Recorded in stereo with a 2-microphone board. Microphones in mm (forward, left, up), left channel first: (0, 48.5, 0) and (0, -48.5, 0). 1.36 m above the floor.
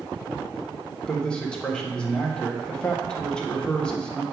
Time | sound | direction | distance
1.1 | a man speaking | 10° left (ahead or behind) | 1.3 m